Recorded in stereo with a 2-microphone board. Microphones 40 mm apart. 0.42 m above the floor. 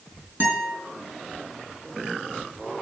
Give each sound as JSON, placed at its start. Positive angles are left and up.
{"t": 0.4, "sound": "a guitar", "side_deg": -45, "distance_m": 4.5}